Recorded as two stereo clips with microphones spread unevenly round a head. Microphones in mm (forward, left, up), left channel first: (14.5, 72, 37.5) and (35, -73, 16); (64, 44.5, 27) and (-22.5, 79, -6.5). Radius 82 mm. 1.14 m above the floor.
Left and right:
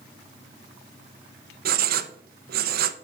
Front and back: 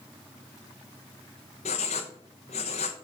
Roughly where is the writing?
Ahead right.